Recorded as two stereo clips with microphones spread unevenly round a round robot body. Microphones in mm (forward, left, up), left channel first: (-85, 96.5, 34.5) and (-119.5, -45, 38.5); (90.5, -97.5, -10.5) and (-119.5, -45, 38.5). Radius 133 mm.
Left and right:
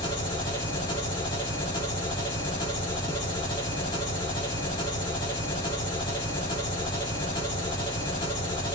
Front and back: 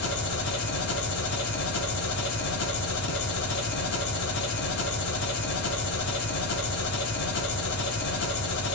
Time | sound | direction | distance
0.0 | an engine running | 10° left | 1.5 m